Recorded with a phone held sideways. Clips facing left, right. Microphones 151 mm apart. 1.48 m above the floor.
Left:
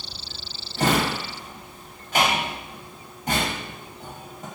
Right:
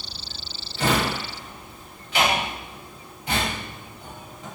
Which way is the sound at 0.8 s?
45° left (ahead or behind).